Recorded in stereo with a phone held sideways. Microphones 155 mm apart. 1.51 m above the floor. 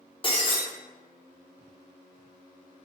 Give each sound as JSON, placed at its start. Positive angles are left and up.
{"t": 0.2, "sound": "breaking glass", "side_deg": 35, "distance_m": 0.7}